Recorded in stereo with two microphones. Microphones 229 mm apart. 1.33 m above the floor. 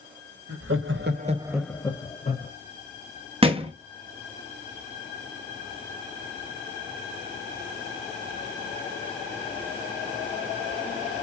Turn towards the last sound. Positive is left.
turn(degrees=-25)  # may be behind; listen again after turning